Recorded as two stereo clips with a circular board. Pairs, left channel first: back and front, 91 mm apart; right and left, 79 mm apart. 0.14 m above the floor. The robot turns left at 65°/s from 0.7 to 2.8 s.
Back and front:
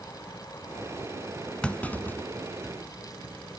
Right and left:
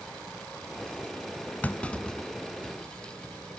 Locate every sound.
1.6 s a clunk: 120° right, 0.7 m; by 2.7 s 170° left, 0.7 m